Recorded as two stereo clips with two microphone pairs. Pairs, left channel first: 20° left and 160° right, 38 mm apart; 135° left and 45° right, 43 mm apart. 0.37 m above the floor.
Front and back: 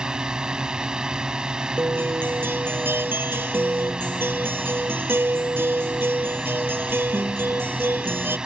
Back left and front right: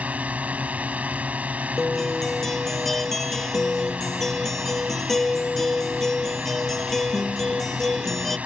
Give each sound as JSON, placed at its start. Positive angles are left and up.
{"t": 0.0, "sound": "a drone", "azimuth_deg": -95}
{"t": 1.8, "sound": "a guitar", "azimuth_deg": -140}